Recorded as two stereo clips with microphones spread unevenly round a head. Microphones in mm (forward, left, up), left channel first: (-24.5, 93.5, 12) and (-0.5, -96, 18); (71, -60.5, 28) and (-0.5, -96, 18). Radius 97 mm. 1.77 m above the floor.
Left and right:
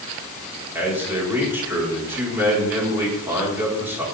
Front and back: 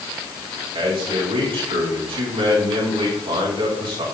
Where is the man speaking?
160° right, 6 m.